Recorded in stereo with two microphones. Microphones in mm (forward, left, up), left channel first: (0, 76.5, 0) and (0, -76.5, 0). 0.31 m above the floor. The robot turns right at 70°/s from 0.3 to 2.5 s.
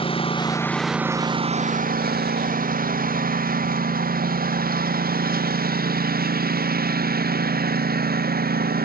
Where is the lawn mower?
35° left (ahead or behind); by 8.9 s 85° right.